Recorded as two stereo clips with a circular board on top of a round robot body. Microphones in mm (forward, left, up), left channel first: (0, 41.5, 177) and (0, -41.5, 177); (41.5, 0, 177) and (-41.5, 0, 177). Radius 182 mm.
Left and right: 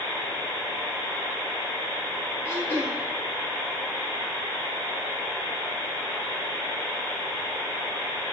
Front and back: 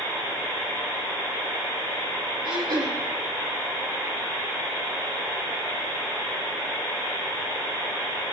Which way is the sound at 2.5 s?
150° left.